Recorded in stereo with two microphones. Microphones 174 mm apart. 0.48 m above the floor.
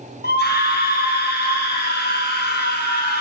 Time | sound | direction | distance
0.2 | a scream | 75° left (ahead or behind) | 4.5 m